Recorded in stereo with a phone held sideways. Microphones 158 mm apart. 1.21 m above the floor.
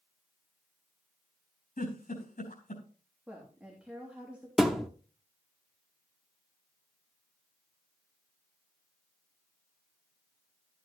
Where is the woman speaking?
10° right (ahead or behind), 2.5 m.